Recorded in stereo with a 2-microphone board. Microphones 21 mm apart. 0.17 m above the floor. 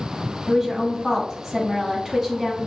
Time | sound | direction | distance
0.5 | a woman speaking | 20° right (ahead or behind) | 1.2 m